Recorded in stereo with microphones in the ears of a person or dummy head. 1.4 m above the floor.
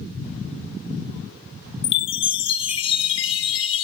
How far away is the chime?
About 0.7 m.